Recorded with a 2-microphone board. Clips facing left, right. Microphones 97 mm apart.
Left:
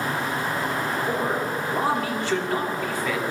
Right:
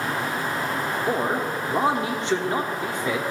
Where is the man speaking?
20° right (ahead or behind), 1.0 m.